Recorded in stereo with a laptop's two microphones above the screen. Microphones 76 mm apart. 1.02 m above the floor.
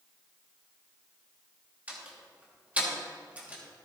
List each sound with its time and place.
1.9 s a door slam: 20° right (ahead or behind), 1.4 m